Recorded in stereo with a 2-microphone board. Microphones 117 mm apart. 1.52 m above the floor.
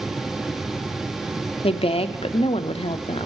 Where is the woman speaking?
55° left (ahead or behind), 0.5 m.